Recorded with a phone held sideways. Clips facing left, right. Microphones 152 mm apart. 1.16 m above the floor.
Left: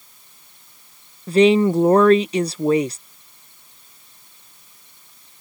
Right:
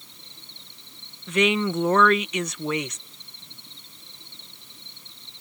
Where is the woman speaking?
35° left (ahead or behind).